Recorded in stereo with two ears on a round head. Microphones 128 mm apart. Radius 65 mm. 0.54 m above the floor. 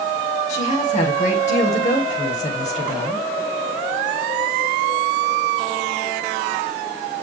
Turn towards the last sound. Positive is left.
turn(degrees=50)  # may be behind; listen again after turning